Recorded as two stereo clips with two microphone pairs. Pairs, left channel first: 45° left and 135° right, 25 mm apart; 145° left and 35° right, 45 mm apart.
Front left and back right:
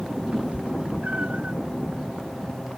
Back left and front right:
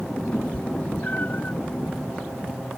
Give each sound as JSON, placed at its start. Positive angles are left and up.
{"t": 0.3, "sound": "a cat meowing", "azimuth_deg": -160}